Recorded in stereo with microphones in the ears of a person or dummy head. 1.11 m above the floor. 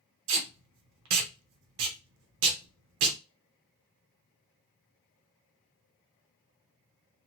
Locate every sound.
0.3 s tape being pulled: 70° right (ahead or behind), 0.8 m